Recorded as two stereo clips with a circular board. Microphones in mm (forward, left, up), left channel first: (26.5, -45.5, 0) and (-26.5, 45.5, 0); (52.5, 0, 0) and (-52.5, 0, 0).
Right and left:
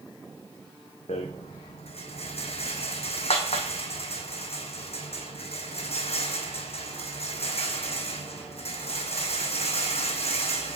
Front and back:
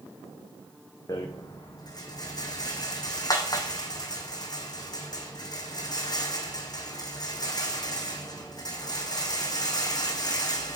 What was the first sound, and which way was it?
A rattle, 50° right.